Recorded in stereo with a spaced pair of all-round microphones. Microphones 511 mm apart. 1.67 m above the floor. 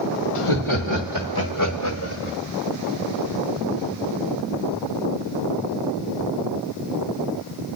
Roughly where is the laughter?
Left.